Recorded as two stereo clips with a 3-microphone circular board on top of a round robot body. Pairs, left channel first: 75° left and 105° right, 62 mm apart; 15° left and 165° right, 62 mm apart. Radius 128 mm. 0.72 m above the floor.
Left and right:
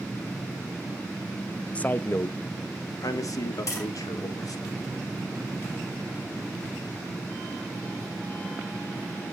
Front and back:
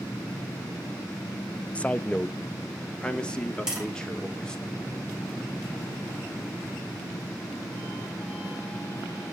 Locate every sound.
1.8 s a man speaking: 45° left, 0.8 m; by 4.7 s 90° left, 3 m
3.7 s tapping: 115° left, 7.5 m